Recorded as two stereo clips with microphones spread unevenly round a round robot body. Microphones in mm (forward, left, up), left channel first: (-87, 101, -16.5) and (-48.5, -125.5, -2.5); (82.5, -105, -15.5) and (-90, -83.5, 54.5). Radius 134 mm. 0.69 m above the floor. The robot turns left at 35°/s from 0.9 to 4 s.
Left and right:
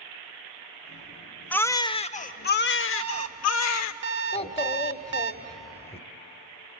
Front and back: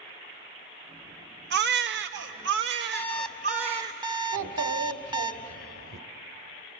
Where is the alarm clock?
85° right, 0.9 m; by 5.3 s 120° right, 0.9 m.